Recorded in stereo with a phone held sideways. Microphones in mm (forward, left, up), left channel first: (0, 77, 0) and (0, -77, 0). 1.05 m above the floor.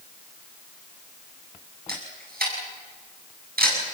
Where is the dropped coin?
I don't hear a dropped coin.